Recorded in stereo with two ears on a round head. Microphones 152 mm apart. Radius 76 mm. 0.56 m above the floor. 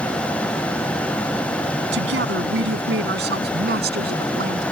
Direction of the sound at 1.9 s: 75° right (ahead or behind).